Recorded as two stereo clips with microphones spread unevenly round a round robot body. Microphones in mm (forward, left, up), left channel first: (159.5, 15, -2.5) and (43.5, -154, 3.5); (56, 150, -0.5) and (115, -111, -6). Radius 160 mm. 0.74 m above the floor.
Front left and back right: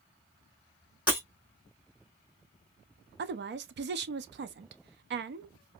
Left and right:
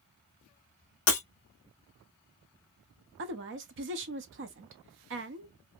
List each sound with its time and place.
1.1 s breaking glass: 150° left, 2 m
3.2 s a woman speaking: 115° right, 0.6 m